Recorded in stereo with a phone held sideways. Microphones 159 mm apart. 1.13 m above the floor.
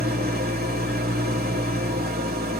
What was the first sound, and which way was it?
An engine running, 75° right (ahead or behind).